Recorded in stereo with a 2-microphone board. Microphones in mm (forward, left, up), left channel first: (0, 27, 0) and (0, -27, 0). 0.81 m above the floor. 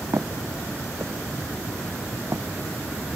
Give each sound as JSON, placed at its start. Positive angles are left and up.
{"t": 0.1, "sound": "footsteps", "side_deg": -65}